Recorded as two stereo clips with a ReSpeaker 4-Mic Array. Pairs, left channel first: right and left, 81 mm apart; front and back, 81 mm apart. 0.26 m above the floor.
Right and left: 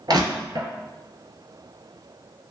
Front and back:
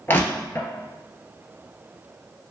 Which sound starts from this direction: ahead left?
Crushing, at 0.1 s.